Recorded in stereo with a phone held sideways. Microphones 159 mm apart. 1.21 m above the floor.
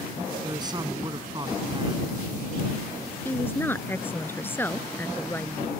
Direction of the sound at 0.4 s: 25° right (ahead or behind).